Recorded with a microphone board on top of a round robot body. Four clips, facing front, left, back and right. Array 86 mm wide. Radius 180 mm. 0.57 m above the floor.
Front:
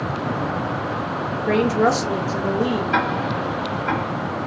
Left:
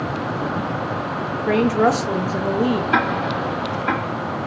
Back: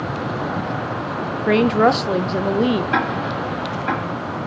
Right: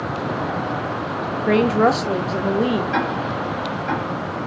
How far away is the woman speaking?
About 0.6 m.